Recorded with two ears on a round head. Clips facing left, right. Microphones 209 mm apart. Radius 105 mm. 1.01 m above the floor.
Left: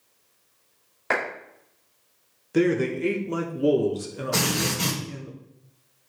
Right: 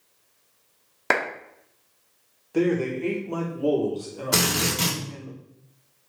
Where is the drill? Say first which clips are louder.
Right 1 dB; 80° right, 2.5 m.